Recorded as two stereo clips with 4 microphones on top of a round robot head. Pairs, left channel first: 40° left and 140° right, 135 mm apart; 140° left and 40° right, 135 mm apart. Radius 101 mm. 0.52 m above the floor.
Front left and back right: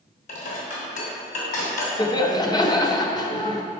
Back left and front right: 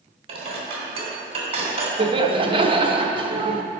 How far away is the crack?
I don't hear a crack.